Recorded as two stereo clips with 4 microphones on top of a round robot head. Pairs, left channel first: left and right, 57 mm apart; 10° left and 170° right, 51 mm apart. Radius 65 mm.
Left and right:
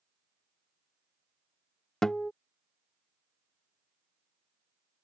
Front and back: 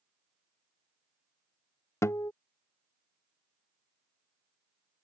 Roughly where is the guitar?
Ahead.